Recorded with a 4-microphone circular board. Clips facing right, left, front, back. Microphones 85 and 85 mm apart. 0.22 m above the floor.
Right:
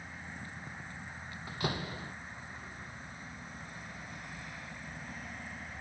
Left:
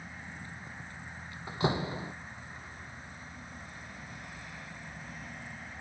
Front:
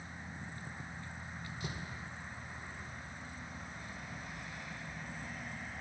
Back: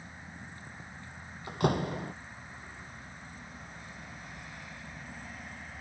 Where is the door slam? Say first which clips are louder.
Left 6 dB, back 18 dB; 155° left.